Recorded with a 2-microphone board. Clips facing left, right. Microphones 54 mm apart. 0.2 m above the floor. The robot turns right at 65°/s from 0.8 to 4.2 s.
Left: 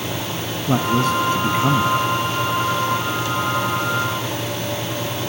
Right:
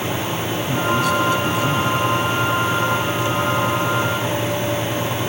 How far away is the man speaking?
About 1.7 m.